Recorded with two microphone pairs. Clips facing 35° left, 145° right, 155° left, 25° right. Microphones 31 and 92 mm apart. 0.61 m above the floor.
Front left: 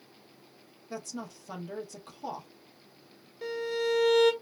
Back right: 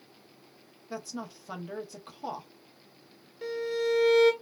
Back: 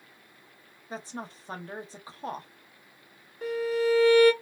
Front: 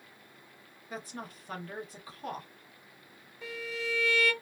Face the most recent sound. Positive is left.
turn(degrees=130)